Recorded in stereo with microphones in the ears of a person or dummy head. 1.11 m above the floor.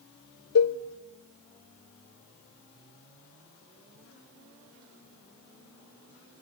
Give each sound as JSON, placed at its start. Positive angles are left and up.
{"t": 0.6, "sound": "a cowbell", "side_deg": 70, "distance_m": 0.9}